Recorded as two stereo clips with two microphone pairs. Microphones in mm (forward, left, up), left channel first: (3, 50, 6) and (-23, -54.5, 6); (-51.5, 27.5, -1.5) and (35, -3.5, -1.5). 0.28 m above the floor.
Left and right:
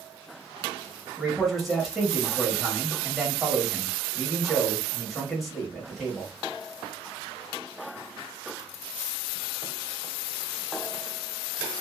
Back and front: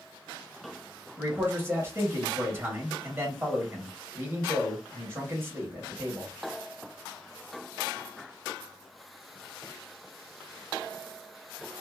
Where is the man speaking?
15° right, 1.2 m.